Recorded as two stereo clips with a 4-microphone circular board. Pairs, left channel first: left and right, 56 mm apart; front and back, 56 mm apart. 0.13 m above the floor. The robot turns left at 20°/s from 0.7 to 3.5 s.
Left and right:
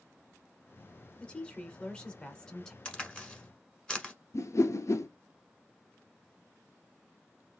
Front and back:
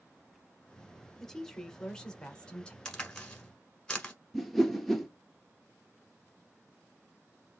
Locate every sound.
1.2 s a woman speaking: 65° left, 1.1 m; by 2.8 s 35° left, 1.1 m
2.9 s a crack: 55° left, 1.2 m; by 4.1 s 45° left, 1.2 m
4.3 s a whoosh: 85° left, 0.6 m